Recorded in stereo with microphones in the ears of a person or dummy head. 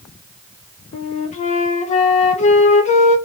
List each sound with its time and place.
0.9 s a flute: 35° left (ahead or behind), 0.6 m